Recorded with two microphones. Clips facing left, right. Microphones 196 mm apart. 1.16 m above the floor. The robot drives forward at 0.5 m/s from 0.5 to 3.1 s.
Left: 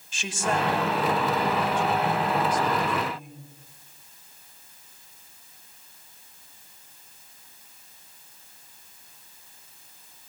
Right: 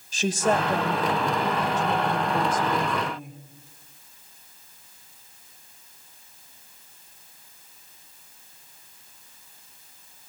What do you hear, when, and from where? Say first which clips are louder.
0.1 s a woman speaking: right 5 dB; 35° right (ahead or behind), 5.5 m; by 3.4 s 45° right (ahead or behind), 4.5 m